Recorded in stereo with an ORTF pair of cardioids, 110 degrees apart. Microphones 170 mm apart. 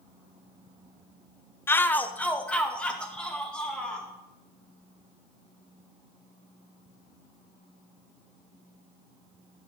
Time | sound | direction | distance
1.7 | a shout | 15° left | 0.8 m